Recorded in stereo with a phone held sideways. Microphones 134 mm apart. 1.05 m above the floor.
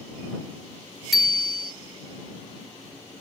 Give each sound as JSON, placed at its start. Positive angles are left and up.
{"t": 1.1, "sound": "a bicycle bell", "side_deg": 0}